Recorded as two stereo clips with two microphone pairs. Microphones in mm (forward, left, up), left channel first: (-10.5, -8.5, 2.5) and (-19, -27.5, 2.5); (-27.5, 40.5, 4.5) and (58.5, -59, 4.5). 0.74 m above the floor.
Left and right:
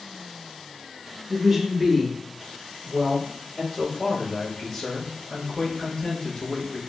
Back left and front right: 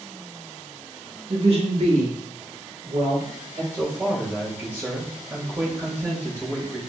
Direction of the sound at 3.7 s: 20° left.